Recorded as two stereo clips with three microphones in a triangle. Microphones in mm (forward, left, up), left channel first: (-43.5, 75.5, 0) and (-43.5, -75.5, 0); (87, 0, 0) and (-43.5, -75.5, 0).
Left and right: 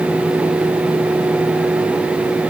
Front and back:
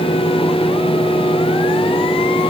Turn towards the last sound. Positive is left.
No sound to turn to.